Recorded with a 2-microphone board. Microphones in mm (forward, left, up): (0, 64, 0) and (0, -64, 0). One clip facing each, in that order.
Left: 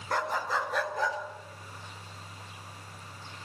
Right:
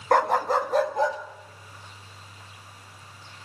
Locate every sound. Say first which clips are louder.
0.1 s a dog barking: right 10 dB; 65° right (ahead or behind), 0.5 m; by 1.2 s 30° right (ahead or behind), 1.5 m